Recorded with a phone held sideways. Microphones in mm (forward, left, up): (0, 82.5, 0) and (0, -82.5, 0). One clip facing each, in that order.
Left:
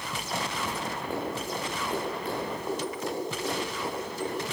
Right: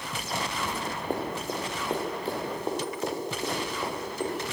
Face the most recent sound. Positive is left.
turn(degrees=-30)  # may be behind; listen again after turning